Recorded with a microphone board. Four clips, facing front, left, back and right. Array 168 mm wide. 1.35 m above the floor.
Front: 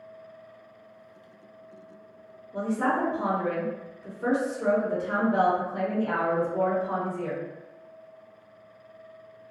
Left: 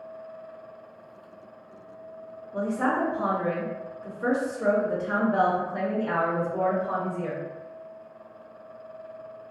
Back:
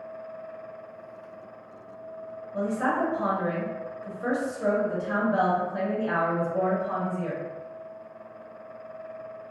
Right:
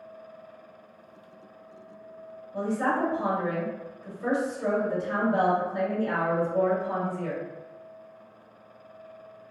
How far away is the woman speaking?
About 1.0 m.